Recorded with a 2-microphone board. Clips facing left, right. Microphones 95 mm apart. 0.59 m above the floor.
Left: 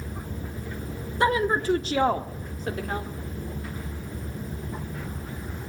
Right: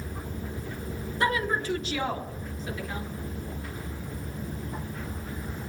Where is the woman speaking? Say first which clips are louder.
Left 5 dB; 25° left (ahead or behind), 1.0 m; by 3.1 s 60° left (ahead or behind), 1.6 m.